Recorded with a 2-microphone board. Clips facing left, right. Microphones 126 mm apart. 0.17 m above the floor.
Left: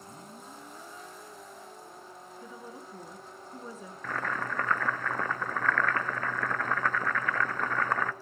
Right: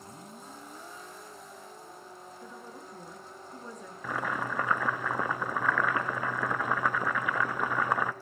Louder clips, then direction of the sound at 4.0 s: Right 1 dB; 10° right (ahead or behind).